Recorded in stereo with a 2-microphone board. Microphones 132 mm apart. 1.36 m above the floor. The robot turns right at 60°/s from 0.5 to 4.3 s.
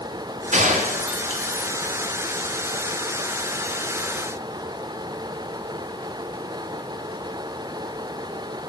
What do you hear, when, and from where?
0.5 s a gunshot: 60° right (ahead or behind), 1.2 m; by 1.7 s 30° right (ahead or behind), 1.2 m